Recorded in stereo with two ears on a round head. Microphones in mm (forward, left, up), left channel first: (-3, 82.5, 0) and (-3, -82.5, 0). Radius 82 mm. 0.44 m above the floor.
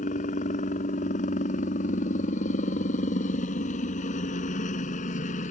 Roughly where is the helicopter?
Left.